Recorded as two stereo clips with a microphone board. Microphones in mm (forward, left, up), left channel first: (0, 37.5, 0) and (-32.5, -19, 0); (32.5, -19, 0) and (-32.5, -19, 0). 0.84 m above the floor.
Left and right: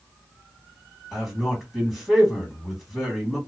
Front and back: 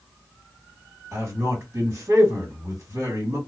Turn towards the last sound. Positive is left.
turn(degrees=150)